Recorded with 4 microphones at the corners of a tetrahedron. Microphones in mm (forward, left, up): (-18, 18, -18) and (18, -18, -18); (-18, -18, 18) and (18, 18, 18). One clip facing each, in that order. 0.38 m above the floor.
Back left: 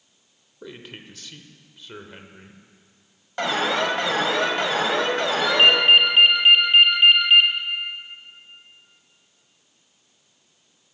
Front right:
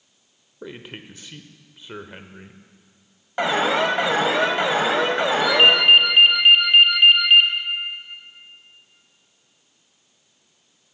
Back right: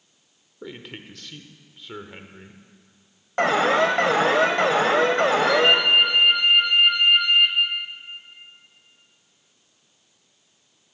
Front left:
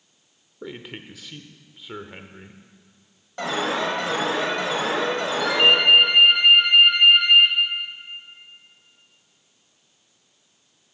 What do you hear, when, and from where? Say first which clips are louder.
0.6 s a man speaking: front right 3 dB, front left 2 dB; 25° right, 0.8 m
3.4 s an alarm: front right 3 dB, back right 6 dB; 115° right, 1.4 m
5.4 s a ringtone: front right 1 dB, front left 5 dB; 35° left, 4.5 m